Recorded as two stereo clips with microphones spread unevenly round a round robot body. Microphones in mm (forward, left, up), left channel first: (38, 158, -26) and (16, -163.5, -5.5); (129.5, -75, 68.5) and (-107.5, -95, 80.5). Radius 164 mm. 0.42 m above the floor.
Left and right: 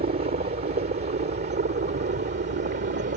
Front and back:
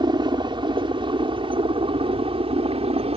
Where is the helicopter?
125° right; by 3.2 s 130° right.